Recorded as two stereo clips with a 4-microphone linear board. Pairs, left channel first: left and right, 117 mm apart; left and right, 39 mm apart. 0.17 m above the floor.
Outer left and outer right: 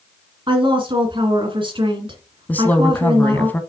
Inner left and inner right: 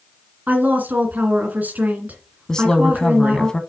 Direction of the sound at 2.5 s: 15° left (ahead or behind).